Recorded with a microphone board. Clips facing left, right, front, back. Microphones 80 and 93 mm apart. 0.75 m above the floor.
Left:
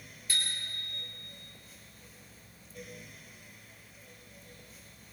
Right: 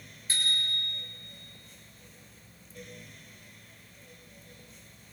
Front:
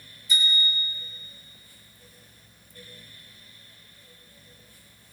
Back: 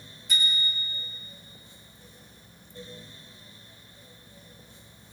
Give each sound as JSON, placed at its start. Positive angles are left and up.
{"t": 0.3, "sound": "a bicycle bell", "azimuth_deg": -150, "distance_m": 9.5}